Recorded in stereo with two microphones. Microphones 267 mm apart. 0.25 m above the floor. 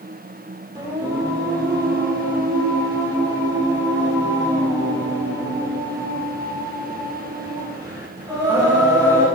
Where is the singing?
15° right (ahead or behind), 3.5 m.